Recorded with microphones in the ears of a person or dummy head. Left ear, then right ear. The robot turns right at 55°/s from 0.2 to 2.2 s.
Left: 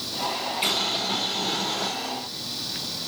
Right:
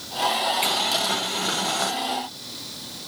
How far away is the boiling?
About 1.1 m.